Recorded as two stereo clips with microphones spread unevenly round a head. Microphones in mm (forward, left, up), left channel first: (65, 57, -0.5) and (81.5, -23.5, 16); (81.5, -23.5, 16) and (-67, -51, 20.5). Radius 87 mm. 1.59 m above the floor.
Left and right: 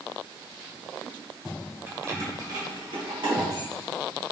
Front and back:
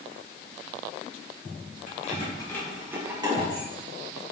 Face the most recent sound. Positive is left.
turn(degrees=-125)